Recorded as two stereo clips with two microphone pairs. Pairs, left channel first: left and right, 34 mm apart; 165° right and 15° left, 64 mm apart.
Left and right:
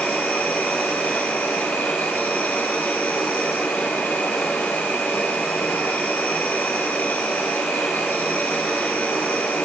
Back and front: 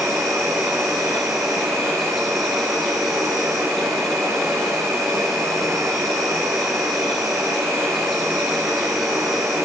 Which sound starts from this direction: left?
An insect, at 0.0 s.